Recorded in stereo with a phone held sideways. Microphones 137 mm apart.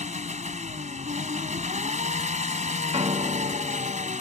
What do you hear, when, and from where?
0.0 s an engine running: 60° right (ahead or behind)
2.9 s a piano: 50° right (ahead or behind)